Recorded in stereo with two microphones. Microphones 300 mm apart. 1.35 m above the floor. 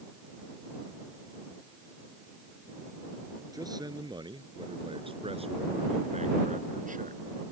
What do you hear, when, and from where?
3.5 s a man speaking: 10° right (ahead or behind); by 7.2 s 30° right (ahead or behind)